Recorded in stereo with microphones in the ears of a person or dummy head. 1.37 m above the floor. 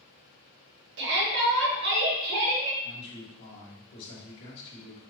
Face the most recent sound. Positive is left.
turn(degrees=65)  # may be behind; listen again after turning